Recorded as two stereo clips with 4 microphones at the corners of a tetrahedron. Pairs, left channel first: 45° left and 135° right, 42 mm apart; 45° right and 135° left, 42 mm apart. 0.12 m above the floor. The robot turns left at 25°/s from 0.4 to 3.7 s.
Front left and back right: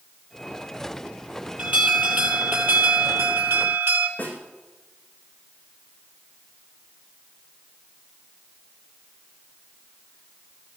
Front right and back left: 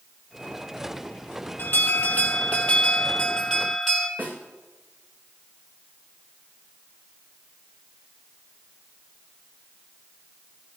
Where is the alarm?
75° right, 3 m; by 4.1 s 130° right, 3 m.